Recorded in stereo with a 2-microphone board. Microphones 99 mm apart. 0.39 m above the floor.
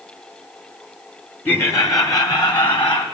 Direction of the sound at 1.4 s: 20° left (ahead or behind).